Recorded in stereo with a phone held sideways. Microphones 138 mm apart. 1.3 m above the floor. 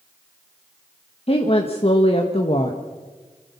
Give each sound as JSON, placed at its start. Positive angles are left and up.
{"t": 1.3, "sound": "a woman speaking", "side_deg": 45, "distance_m": 1.5}